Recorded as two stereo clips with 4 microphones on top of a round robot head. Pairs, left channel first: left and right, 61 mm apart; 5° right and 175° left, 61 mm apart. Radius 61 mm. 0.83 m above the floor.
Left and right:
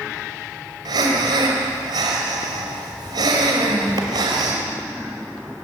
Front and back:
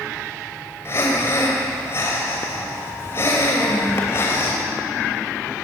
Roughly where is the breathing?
Ahead right.